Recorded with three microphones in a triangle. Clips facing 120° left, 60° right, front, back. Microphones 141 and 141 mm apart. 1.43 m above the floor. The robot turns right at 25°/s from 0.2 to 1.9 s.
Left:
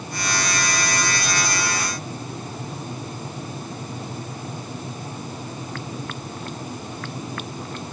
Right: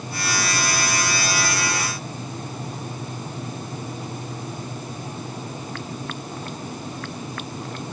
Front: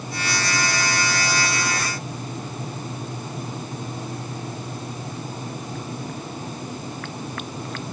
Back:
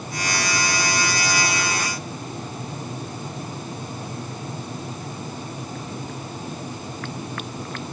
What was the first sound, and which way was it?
Only background noise.